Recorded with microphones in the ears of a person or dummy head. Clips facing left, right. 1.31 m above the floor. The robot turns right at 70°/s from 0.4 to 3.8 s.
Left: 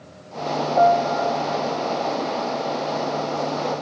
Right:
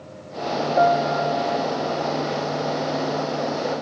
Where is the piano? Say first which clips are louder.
Left 2 dB; 155° right, 0.5 m; by 1.6 s 95° right, 0.5 m.